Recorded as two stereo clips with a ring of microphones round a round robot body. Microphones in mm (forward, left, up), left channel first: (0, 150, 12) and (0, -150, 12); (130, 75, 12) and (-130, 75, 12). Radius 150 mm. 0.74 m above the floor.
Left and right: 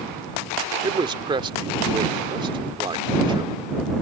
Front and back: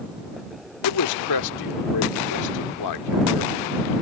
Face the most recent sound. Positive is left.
turn(degrees=-15)